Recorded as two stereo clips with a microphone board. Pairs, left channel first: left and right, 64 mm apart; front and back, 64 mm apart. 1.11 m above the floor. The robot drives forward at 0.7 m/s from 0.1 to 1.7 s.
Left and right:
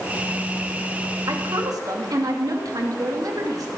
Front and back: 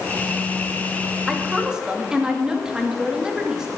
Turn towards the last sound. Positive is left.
turn(degrees=-100)